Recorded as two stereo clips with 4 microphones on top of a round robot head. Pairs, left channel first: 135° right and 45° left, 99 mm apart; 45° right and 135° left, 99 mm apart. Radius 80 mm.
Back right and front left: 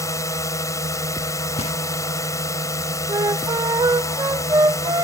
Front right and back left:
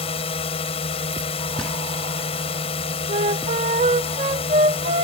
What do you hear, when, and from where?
0.0 s a drone: 75° right
1.6 s knocking: 130° right
3.1 s a flute: 105° left